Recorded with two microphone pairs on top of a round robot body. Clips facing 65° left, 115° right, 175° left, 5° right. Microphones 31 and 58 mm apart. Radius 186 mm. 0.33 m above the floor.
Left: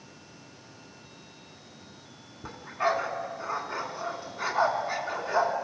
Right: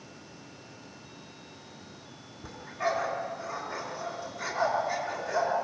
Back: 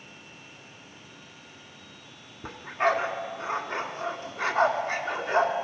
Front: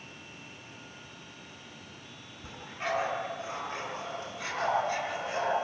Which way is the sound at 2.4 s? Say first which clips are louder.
Left 3 dB, back 10 dB; 125° left.